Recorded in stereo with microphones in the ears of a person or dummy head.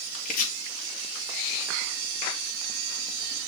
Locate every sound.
0.2 s chopping: 45° left (ahead or behind), 3.5 m